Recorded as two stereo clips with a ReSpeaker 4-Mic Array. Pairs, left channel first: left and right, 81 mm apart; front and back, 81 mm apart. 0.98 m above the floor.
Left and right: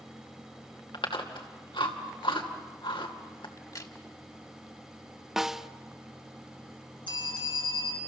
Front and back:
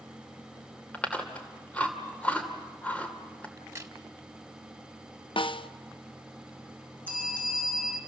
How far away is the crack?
About 1.6 m.